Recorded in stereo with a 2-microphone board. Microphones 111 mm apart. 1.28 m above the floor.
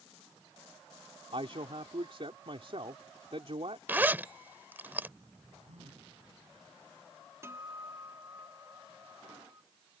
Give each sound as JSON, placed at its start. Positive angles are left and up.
{"t": 1.3, "sound": "a man speaking", "side_deg": -55}
{"t": 3.9, "sound": "a zipper", "side_deg": -15}
{"t": 5.7, "sound": "a phone buzzing", "side_deg": -85}
{"t": 7.4, "sound": "a guitar", "side_deg": -25}